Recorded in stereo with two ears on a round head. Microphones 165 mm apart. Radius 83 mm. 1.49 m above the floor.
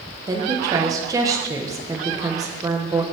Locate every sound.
0.3 s a woman speaking: 20° right (ahead or behind), 1.2 m